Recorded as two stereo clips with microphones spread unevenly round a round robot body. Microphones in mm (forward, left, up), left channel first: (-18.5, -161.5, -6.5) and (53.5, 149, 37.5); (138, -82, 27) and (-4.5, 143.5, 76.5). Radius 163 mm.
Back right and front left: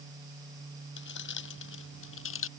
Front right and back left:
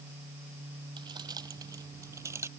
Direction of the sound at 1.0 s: 160° right.